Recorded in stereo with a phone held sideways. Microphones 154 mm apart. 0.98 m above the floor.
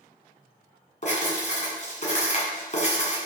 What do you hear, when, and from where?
1.0 s writing: 55° left (ahead or behind), 2 m